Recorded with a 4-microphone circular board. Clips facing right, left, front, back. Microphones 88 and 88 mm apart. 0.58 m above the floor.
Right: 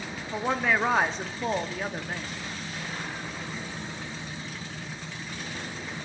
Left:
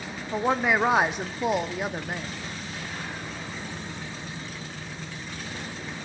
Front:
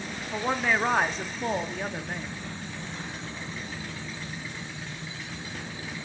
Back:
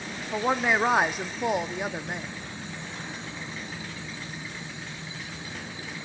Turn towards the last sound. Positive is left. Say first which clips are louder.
# left 3 dB, back 2 dB
turn(degrees=135)